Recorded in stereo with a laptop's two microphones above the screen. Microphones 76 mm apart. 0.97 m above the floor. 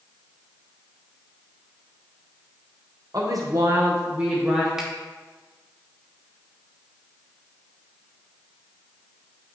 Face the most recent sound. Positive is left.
turn(degrees=-5)  # may be behind; listen again after turning